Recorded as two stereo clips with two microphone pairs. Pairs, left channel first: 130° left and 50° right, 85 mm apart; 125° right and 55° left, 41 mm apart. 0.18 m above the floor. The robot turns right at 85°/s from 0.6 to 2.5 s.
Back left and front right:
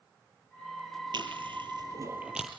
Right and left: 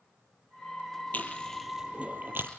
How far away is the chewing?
About 4 m.